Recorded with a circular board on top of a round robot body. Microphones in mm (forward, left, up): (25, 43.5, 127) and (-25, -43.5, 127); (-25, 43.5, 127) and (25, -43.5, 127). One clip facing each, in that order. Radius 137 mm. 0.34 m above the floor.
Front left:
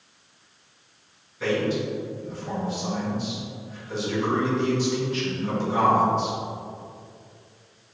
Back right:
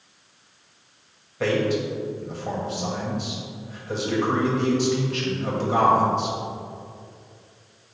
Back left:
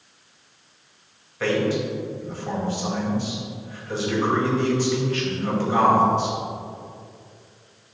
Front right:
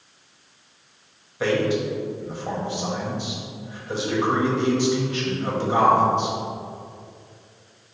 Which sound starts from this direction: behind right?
A man speaking, at 1.4 s.